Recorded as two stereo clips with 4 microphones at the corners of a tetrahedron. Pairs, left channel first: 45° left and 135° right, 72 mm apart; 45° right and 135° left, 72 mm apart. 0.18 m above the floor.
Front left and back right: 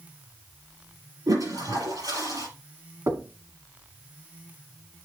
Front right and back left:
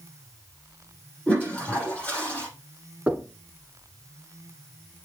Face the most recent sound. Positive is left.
turn(degrees=-160)